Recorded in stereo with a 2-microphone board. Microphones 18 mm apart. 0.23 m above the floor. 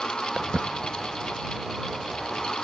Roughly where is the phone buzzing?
No phone buzzing in this recording.